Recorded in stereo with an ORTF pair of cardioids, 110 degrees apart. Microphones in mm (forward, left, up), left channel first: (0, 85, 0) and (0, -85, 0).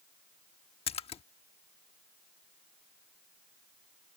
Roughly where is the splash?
Ahead left.